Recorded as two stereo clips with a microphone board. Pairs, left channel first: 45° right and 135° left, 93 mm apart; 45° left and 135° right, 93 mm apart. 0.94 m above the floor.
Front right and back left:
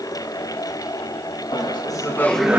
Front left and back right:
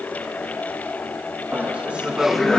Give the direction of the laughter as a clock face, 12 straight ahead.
2 o'clock.